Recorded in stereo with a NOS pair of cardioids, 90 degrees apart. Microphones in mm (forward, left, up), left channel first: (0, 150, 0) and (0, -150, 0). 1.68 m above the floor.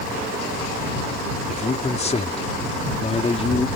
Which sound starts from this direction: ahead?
A man speaking, at 1.5 s.